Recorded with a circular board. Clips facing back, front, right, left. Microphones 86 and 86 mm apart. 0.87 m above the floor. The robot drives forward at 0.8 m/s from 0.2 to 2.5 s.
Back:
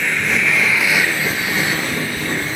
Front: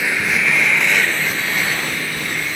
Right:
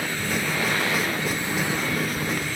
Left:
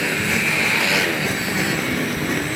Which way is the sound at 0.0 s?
85° left.